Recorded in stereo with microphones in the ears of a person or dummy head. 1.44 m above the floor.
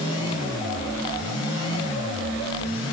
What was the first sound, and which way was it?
Only background noise.